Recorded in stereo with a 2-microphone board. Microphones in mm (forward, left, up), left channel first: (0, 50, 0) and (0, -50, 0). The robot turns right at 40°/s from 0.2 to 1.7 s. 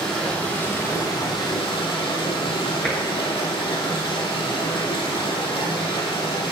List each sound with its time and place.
0.0 s running water: 10° left, 3 m; by 6.5 s 70° left, 3 m
2.8 s tapping: 10° left (ahead or behind), 3 m